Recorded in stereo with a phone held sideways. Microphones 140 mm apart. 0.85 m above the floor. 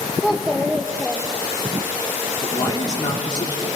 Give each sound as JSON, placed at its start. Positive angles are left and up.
{"t": 0.2, "sound": "a child speaking", "side_deg": -5, "distance_m": 0.7}
{"t": 2.4, "sound": "a man speaking", "side_deg": 30, "distance_m": 2.5}